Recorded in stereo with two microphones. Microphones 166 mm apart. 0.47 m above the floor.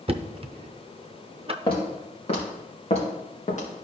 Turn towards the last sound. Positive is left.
turn(degrees=50)  # may be behind; listen again after turning